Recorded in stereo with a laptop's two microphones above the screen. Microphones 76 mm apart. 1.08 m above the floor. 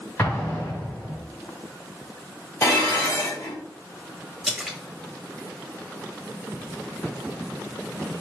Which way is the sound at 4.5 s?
5° right (ahead or behind).